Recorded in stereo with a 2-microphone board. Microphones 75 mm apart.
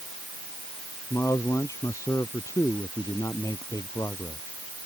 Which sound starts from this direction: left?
A man speaking, at 1.1 s.